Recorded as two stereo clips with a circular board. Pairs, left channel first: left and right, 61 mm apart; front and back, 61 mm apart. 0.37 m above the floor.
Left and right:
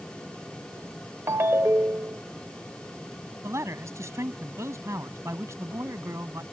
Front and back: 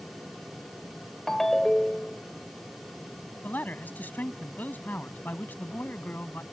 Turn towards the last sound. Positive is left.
turn(degrees=-60)